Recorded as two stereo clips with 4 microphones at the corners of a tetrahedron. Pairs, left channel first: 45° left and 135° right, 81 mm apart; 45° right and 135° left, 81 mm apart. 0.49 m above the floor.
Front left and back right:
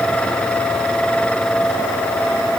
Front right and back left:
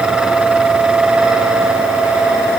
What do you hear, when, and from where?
Only background noise.